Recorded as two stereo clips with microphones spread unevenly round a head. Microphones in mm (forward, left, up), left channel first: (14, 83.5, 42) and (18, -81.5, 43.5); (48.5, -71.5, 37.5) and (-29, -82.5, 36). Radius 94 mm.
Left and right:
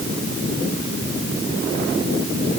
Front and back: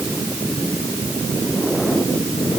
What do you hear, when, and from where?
Only background noise.